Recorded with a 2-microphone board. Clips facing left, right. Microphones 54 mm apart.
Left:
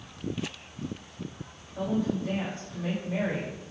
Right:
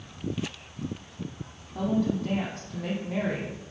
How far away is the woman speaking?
About 3.5 m.